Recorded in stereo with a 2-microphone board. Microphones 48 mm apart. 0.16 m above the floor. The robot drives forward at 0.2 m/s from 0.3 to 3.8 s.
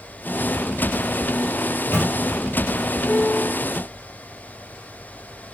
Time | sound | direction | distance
1.7 | a microwave | 55° left (ahead or behind) | 3 m
3.1 | a piano | 55° left (ahead or behind) | 3 m